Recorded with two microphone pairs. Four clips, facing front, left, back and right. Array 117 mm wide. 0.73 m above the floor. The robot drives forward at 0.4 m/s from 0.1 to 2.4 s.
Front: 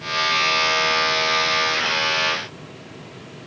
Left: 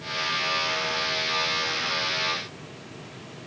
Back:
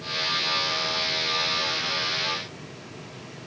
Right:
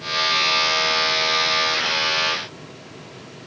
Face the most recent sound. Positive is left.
No sound to turn to.